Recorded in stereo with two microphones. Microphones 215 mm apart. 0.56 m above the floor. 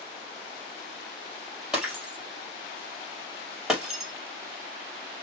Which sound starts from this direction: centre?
Breaking glass, at 1.7 s.